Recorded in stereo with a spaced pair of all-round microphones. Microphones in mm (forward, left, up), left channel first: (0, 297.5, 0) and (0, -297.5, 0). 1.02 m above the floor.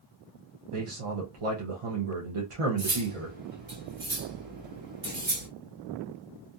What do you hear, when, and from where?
0.7 s a man speaking: 60° right (ahead or behind), 0.7 m
2.8 s cutlery clinking: 65° right (ahead or behind), 1.1 m